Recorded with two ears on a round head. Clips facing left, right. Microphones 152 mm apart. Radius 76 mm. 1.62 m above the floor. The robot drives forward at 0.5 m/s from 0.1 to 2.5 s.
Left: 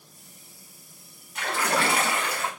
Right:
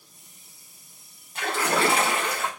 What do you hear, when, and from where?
1.4 s a splash: 25° right (ahead or behind), 1.6 m; by 2.5 s 20° right (ahead or behind), 2 m